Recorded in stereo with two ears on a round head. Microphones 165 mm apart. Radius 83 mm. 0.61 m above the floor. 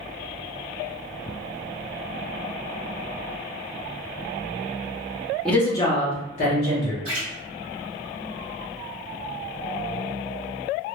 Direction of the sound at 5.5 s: 5° left (ahead or behind).